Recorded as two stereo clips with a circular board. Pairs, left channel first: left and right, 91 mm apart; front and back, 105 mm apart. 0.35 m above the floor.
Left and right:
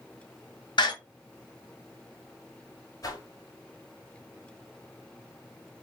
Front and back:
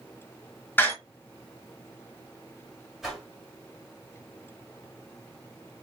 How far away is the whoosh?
About 1.8 m.